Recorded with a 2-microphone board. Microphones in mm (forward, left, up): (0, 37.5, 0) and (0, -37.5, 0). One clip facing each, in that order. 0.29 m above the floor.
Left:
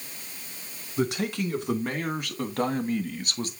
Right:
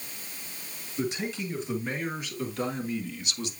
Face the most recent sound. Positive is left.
turn(degrees=45)  # may be behind; listen again after turning